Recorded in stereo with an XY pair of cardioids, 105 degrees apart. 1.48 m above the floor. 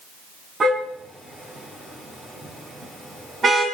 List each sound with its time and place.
0.6 s a car horn: 35° right, 5.5 m